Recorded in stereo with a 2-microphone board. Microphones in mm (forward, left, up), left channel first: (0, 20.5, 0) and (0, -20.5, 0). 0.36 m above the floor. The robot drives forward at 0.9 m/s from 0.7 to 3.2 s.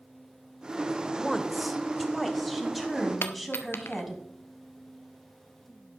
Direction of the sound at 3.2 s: 75° left (ahead or behind).